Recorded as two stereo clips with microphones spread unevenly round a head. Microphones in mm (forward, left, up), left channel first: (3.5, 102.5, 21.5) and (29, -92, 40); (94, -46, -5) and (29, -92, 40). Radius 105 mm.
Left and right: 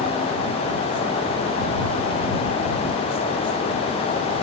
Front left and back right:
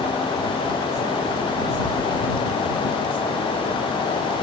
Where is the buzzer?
No buzzer in this recording.